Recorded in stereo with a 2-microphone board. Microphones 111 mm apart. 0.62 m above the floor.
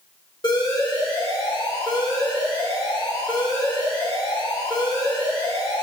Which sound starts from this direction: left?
An alarm, at 0.4 s.